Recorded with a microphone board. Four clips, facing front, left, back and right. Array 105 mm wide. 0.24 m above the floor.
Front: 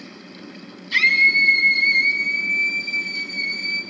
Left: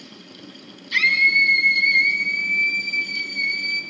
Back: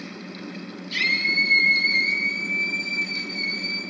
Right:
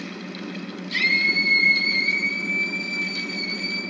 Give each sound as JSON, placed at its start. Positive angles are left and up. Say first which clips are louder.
{"t": 0.9, "sound": "a scream", "louder": "left 4 dB, front 7 dB", "azimuth_deg": 35, "distance_m": 6.5}